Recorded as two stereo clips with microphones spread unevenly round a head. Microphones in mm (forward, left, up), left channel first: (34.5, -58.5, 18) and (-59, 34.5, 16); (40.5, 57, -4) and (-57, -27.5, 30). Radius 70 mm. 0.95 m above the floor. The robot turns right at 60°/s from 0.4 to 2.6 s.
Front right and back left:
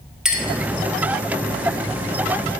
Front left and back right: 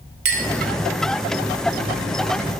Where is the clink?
140° right, 1.0 m; by 0.5 s 135° right, 1.0 m.